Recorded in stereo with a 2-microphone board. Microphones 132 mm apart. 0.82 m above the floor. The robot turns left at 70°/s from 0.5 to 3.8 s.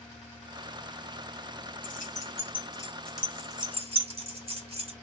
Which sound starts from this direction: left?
Keys jangling, at 1.8 s.